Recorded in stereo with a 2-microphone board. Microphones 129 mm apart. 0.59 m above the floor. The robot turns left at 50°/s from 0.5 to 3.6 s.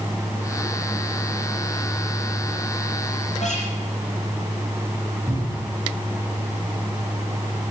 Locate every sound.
3.4 s a guitar: 60° left (ahead or behind), 6 m; by 3.7 s 70° left (ahead or behind), 6 m
5.3 s a cupboard door: 5° right (ahead or behind), 3.5 m